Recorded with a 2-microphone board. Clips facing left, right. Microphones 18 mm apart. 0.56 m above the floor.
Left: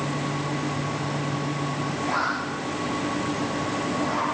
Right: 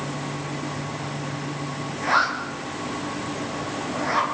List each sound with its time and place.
2.0 s a zipper: 55° right (ahead or behind), 5.5 m